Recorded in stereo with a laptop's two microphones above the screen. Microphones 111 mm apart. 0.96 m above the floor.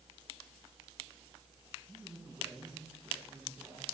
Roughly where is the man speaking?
Centre.